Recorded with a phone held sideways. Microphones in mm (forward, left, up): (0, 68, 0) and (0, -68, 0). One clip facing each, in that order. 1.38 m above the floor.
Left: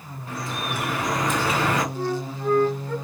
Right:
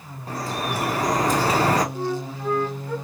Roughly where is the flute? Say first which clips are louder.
Even; centre.